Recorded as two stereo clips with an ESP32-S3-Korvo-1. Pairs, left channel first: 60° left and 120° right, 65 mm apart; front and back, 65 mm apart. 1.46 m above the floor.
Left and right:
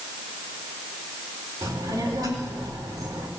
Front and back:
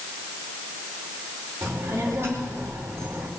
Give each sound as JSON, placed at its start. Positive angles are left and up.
{"t": 1.6, "sound": "a child speaking", "azimuth_deg": -130, "distance_m": 4.0}